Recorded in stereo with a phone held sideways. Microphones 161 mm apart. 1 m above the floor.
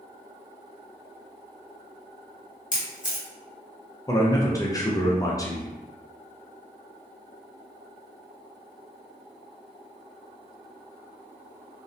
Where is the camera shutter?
55° left (ahead or behind), 0.8 m.